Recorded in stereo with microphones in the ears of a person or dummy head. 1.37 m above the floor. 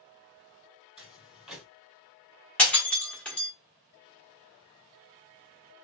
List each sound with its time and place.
1.0 s footsteps: centre (ahead or behind), 2 m
2.6 s breaking glass: 5° left (ahead or behind), 1.1 m